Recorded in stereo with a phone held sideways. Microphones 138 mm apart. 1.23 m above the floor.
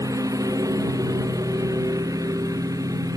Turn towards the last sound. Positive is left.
turn(degrees=-25)  # may be behind; listen again after turning